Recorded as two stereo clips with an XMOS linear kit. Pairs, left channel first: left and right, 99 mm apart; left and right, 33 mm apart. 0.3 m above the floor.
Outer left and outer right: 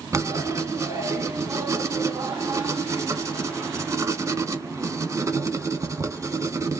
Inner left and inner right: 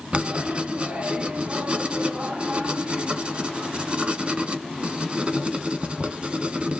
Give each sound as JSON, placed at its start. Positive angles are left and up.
{"t": 0.1, "sound": "writing", "side_deg": -30, "distance_m": 0.7}